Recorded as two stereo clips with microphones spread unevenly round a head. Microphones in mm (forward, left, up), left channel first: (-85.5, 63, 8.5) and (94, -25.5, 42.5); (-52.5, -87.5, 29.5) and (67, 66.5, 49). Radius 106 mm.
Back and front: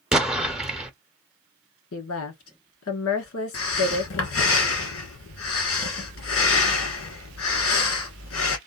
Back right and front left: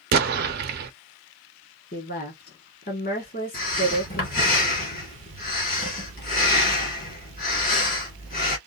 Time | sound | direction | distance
0.1 | an explosion | 50° left | 0.6 m
1.9 | a woman speaking | 175° right | 1.6 m
3.5 | breathing | straight behind | 1.6 m